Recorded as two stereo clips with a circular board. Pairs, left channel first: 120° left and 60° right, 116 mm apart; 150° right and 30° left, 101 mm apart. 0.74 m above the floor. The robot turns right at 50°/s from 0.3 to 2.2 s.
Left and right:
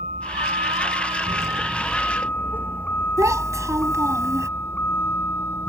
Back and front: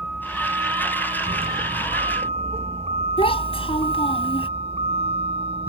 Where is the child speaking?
125° right.